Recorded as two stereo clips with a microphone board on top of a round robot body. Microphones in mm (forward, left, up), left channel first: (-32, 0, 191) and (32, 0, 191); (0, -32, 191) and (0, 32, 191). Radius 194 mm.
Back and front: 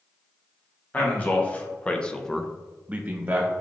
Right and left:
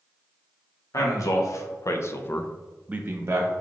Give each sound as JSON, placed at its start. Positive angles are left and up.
{"t": 0.9, "sound": "a man speaking", "azimuth_deg": -115, "distance_m": 1.2}